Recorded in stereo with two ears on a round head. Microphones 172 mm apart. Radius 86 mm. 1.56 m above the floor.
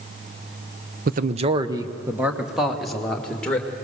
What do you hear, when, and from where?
1.1 s a man speaking: 50° right (ahead or behind), 0.7 m; by 3.7 s 5° left (ahead or behind), 2 m